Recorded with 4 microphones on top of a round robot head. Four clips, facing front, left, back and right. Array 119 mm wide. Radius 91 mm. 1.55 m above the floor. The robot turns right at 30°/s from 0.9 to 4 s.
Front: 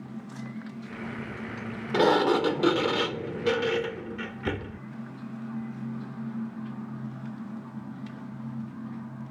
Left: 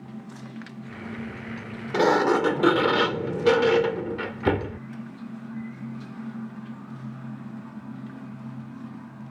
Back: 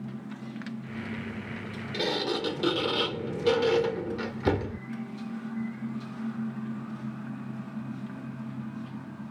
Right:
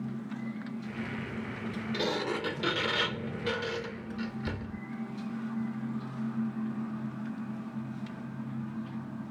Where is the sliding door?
50° left; by 4.8 s 110° left.